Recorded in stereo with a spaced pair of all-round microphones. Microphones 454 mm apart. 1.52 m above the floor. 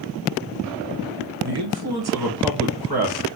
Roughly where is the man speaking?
Right.